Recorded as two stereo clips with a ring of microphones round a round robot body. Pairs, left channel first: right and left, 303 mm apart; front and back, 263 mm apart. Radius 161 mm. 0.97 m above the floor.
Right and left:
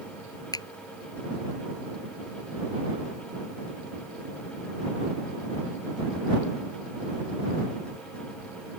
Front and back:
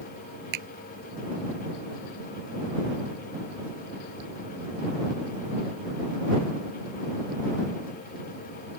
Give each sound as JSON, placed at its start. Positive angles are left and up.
{"t": 0.5, "sound": "a finger snap", "azimuth_deg": -170}